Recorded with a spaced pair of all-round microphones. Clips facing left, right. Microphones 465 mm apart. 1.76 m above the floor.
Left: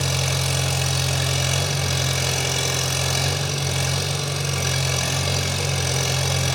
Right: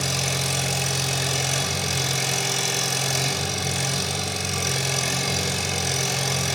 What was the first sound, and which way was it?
An engine running, 75° left (ahead or behind).